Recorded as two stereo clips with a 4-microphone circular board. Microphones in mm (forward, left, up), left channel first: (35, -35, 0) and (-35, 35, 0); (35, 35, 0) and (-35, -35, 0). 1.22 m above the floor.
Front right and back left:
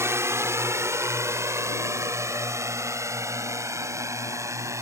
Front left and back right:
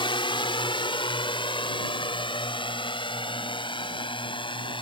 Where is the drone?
75° left.